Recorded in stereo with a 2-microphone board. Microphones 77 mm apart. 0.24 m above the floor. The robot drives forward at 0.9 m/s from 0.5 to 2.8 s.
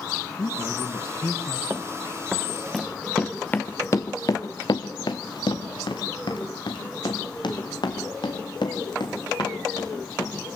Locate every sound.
0.4 s a man speaking: 65° left (ahead or behind), 2.5 m; by 1.6 s 55° left (ahead or behind), 2.5 m
1.7 s running footsteps: 35° right (ahead or behind), 1.0 m; by 10.3 s 70° left (ahead or behind), 5 m